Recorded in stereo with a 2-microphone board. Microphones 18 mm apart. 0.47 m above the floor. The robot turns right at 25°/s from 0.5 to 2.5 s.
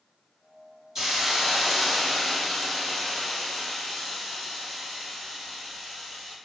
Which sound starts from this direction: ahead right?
A hiss, at 0.9 s.